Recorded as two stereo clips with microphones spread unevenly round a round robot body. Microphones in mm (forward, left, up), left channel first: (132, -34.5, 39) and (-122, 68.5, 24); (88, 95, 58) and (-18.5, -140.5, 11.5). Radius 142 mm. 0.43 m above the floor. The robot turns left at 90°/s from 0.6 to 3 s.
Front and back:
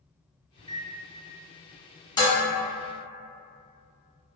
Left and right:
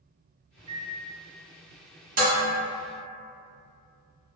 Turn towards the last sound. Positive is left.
turn(degrees=-170)